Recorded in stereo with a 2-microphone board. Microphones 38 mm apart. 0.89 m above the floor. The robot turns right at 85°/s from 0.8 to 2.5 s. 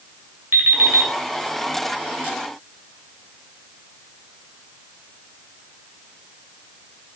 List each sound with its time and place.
0.5 s an alarm clock: 65° right (ahead or behind), 2.5 m; by 1.1 s 90° right, 2.5 m